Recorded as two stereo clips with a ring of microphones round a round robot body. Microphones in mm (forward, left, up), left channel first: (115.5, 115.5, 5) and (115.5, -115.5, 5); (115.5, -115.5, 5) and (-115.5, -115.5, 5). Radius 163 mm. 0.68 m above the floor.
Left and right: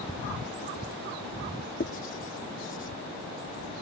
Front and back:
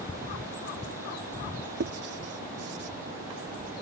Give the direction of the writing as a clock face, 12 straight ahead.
7 o'clock.